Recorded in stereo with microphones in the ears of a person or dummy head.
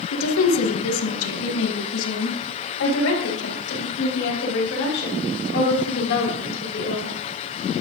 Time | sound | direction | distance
0.1 | a woman speaking | 85° left | 1.7 m